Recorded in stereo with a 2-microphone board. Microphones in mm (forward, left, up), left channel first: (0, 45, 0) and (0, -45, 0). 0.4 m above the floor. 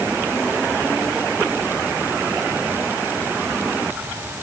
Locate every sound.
Only background noise.